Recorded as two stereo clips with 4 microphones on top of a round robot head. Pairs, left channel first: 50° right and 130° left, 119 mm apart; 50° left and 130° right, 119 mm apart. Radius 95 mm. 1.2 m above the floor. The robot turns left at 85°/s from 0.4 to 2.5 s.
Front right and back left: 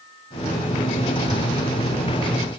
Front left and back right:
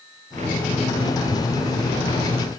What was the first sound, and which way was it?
Only background noise.